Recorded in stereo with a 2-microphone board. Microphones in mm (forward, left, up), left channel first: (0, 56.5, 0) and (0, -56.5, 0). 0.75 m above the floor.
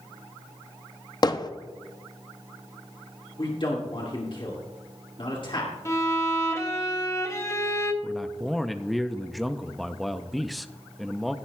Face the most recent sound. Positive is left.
turn(degrees=0)  # may be behind; listen again after turning